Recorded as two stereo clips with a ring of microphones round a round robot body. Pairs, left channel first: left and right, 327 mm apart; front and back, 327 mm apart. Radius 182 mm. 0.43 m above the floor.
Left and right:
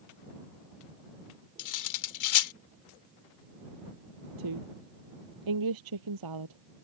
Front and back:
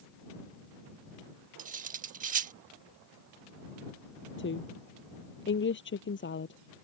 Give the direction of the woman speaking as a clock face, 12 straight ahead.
2 o'clock.